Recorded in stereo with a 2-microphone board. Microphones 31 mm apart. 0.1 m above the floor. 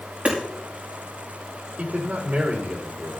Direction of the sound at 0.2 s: 45° right (ahead or behind).